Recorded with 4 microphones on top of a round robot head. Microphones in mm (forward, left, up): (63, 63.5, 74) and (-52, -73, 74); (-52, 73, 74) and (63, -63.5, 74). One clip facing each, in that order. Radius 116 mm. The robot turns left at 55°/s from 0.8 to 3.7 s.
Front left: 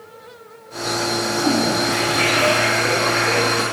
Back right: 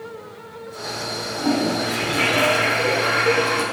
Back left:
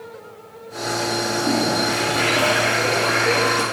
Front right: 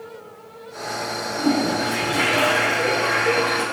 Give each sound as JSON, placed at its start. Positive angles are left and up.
{"t": 1.4, "sound": "a toilet flushing", "azimuth_deg": -40, "distance_m": 2.0}